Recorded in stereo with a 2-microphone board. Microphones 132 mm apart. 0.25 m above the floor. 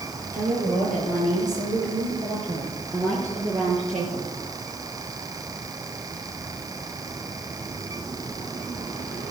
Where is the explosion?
I don't hear an explosion.